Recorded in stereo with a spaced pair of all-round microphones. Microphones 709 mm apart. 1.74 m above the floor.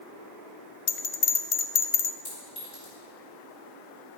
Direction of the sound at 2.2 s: 60° left (ahead or behind).